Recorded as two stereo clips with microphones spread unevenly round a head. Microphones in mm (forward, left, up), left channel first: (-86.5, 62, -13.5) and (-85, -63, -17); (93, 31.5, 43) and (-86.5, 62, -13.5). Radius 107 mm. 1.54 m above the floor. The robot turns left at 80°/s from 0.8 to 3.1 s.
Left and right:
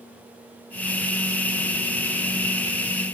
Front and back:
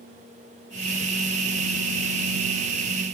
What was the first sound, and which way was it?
Only background noise.